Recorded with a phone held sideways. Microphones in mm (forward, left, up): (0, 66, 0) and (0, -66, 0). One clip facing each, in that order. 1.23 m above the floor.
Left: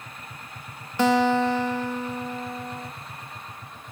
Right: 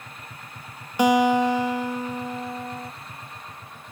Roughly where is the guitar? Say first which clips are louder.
Right 2 dB; centre.